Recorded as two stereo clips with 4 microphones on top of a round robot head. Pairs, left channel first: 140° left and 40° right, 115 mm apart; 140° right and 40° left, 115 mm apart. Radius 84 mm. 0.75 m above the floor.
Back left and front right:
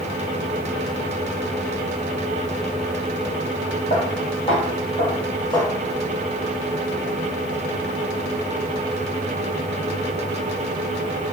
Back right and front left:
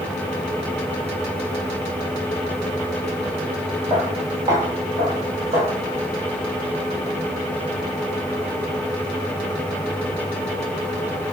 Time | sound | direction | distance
3.9 | footsteps | 110° left | 1.1 m